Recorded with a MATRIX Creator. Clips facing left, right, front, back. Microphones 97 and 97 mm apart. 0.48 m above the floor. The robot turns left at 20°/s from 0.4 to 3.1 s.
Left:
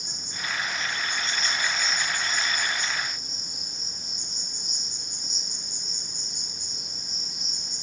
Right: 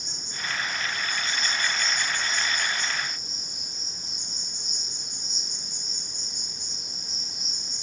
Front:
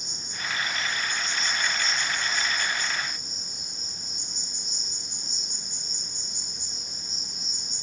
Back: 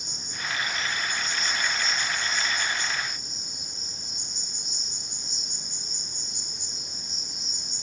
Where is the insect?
165° left, 0.9 m; by 7.8 s 110° left, 0.9 m.